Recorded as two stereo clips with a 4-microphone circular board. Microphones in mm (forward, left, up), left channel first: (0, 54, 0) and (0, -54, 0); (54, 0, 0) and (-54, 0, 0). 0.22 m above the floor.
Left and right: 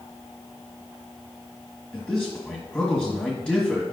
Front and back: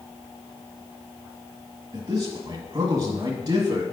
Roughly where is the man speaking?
Behind.